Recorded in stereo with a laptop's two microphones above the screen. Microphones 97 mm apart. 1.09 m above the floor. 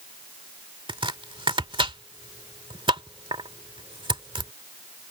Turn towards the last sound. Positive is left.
turn(degrees=-60)  # may be behind; listen again after turning